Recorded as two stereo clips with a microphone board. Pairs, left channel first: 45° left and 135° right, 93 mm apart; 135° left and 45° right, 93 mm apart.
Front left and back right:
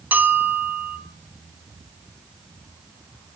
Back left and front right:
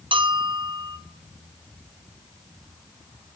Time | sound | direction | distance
0.1 | a bell | 65° right | 0.7 m